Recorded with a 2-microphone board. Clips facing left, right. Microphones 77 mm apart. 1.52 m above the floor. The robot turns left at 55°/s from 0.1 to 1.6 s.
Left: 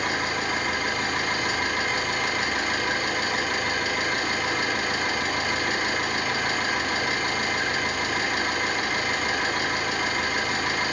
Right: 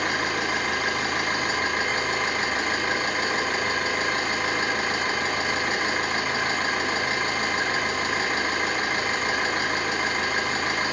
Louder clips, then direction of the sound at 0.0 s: Right 1 dB; 65° right.